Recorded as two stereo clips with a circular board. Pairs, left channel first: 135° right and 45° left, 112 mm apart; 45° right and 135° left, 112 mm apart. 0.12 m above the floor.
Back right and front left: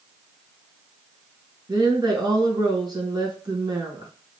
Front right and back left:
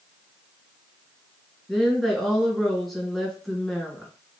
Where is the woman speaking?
40° left, 1.5 m.